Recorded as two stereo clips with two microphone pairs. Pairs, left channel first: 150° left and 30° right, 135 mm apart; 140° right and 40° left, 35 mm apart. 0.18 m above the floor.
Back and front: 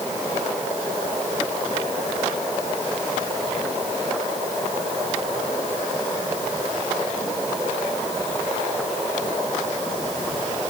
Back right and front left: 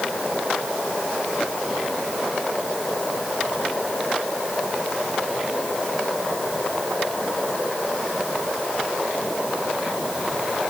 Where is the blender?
No blender in this recording.